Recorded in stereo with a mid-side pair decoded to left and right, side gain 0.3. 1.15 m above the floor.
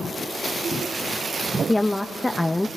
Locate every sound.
1.7 s a woman speaking: 20° left, 1.0 m